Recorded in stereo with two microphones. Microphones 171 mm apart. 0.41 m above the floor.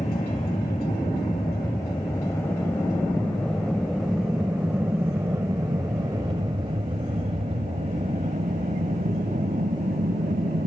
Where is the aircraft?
30° left (ahead or behind); by 10.7 s 55° right (ahead or behind).